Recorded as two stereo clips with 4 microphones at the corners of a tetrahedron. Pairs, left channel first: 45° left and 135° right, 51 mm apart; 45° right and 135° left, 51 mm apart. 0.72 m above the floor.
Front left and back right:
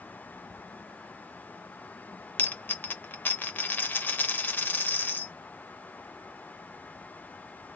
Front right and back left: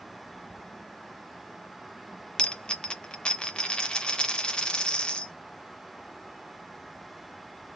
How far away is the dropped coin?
About 0.5 m.